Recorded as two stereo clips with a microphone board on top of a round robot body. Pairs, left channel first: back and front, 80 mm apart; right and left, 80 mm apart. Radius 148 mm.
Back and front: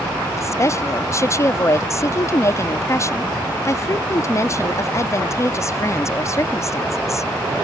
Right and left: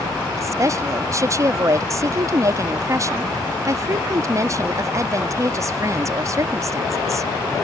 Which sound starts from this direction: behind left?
A woman speaking, at 0.4 s.